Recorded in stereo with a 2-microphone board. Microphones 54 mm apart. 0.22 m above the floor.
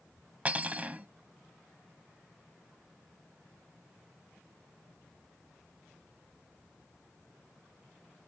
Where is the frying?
No frying in this recording.